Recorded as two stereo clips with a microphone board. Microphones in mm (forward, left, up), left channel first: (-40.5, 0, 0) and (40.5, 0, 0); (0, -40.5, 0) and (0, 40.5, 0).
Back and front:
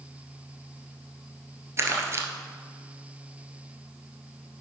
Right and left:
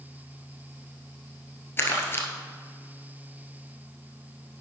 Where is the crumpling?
40° right, 1.2 m.